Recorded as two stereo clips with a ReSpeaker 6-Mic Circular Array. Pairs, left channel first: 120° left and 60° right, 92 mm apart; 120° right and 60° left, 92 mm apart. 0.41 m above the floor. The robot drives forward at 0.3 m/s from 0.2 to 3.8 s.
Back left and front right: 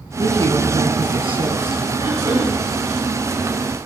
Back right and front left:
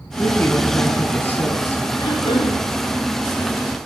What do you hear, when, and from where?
0.2 s a woman speaking: 45° right, 4.5 m; by 1.8 s 50° right, 4.5 m
2.0 s throat clearing: 100° right, 10 m